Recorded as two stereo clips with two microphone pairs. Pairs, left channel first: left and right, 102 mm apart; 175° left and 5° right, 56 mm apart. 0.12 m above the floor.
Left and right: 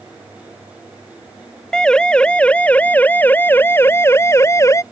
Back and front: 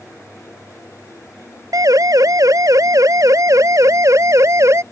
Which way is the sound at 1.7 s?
5° left.